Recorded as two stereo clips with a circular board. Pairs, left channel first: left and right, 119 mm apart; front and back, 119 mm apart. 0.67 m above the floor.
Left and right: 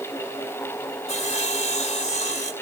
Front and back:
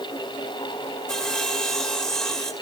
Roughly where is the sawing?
Left.